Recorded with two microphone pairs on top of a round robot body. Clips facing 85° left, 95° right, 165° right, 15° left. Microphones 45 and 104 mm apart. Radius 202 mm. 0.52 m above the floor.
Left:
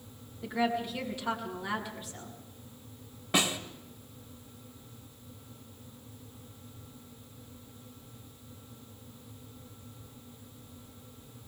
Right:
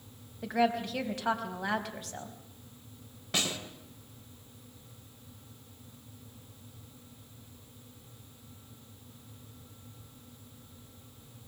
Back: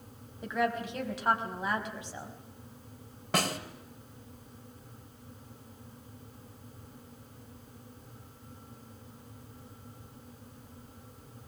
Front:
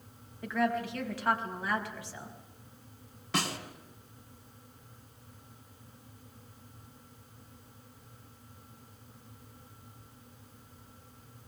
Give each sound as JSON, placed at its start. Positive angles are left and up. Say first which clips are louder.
{"t": 0.4, "sound": "a woman speaking", "louder": "right 2 dB, front 1 dB", "azimuth_deg": -95, "distance_m": 4.5}
{"t": 3.3, "sound": "a snare drum", "louder": "left 4 dB, back 3 dB", "azimuth_deg": 155, "distance_m": 2.0}